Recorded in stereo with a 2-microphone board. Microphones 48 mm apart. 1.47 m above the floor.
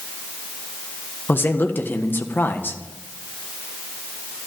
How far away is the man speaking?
About 1.4 m.